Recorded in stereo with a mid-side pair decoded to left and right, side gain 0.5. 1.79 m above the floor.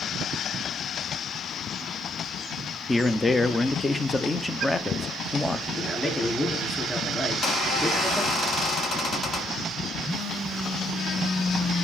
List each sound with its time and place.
2.9 s a man speaking: 20° left, 1.0 m
5.7 s a man speaking: 20° left, 5 m
7.3 s a squeak: 50° left, 7 m
10.0 s a phone buzzing: 30° left, 7 m